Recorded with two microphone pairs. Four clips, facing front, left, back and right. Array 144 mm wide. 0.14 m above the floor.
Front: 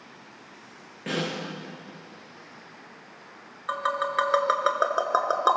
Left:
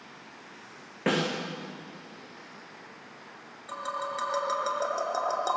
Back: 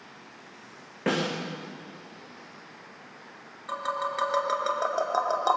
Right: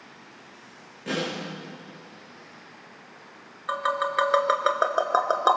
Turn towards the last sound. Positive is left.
turn(degrees=-60)